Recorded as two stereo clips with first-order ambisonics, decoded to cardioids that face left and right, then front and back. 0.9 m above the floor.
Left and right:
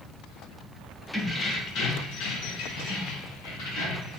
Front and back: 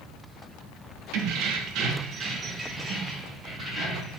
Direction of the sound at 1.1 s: 170° left.